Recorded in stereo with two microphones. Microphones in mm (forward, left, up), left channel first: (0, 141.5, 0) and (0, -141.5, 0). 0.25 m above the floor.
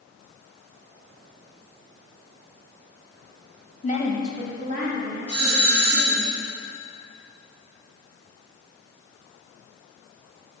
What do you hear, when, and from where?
3.8 s a woman speaking: 30° left (ahead or behind), 1.1 m; by 6.3 s 60° right (ahead or behind), 3 m
5.3 s a doorbell: 55° right (ahead or behind), 2.5 m